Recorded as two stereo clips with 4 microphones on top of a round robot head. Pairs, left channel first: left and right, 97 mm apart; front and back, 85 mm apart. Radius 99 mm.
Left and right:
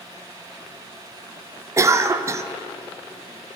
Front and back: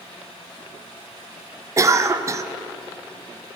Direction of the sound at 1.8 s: 140° right.